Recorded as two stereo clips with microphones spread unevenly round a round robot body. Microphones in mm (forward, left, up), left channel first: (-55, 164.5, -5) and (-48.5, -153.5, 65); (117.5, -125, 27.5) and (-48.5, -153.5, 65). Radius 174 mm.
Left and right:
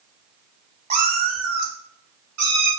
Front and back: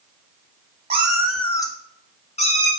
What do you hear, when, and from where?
0.9 s a cat meowing: 145° right, 0.7 m; by 2.7 s 40° right, 1.8 m